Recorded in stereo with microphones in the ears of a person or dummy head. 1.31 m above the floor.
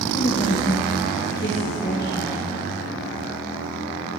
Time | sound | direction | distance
0.1 | a woman speaking | 20° left (ahead or behind) | 1.2 m